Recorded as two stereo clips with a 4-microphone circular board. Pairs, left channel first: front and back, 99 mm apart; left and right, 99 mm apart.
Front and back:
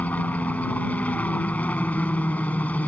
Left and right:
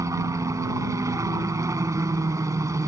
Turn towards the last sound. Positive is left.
turn(degrees=-65)